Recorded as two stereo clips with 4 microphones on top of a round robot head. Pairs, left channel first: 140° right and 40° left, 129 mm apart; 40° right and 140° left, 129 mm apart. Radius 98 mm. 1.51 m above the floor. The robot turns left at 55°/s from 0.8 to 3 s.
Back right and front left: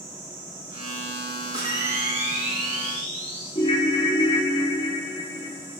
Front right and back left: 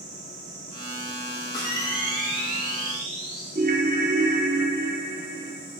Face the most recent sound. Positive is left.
turn(degrees=165)